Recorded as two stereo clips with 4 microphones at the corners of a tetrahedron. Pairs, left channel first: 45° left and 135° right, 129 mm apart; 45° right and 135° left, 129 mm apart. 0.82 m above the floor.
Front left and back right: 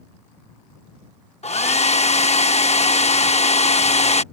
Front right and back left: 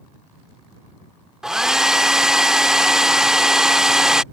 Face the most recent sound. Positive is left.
turn(degrees=50)